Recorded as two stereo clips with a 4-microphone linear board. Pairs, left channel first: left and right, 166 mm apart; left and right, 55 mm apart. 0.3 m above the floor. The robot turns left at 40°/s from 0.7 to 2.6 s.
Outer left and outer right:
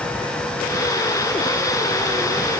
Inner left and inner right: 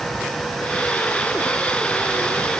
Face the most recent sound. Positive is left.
No sound to turn to.